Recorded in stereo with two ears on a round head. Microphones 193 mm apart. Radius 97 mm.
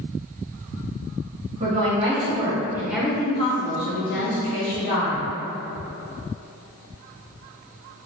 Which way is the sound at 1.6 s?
30° right (ahead or behind).